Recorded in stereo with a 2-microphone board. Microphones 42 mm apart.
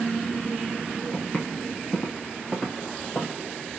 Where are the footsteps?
40° left (ahead or behind), 1.9 m; by 3.4 s 50° left (ahead or behind), 2.5 m.